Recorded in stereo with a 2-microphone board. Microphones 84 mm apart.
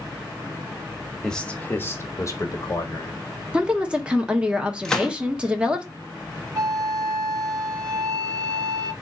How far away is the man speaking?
About 0.9 m.